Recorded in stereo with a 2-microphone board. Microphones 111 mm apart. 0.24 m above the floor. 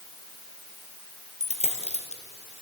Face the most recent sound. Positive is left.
turn(degrees=75)  # may be behind; listen again after turning